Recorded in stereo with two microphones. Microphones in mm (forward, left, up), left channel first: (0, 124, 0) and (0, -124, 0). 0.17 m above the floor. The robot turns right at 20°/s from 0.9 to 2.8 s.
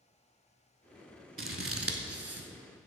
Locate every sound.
1.4 s scissors: 55° right (ahead or behind), 0.6 m; by 2.5 s 70° right (ahead or behind), 0.6 m